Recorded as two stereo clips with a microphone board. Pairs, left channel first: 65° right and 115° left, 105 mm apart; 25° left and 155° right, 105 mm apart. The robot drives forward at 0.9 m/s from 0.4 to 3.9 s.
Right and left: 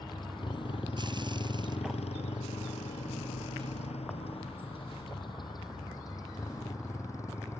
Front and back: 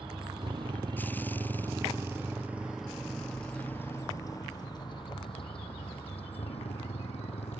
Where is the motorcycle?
115° right; by 7.6 s straight ahead.